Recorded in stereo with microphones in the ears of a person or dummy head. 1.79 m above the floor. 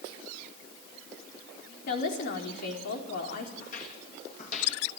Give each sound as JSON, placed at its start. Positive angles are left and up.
{"t": 1.9, "sound": "a woman speaking", "side_deg": 60, "distance_m": 4.5}
{"t": 3.6, "sound": "footsteps", "side_deg": 50, "distance_m": 6.0}